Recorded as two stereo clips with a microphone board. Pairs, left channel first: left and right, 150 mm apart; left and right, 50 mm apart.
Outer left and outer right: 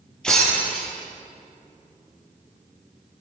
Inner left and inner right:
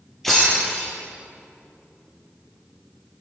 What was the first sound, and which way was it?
Breaking glass, 5° left (ahead or behind).